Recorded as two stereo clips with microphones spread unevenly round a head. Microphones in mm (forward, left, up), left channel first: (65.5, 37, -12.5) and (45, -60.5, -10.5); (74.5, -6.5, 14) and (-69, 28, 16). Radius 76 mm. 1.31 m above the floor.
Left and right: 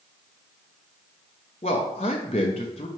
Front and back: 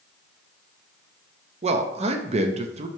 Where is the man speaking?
120° left, 0.6 m.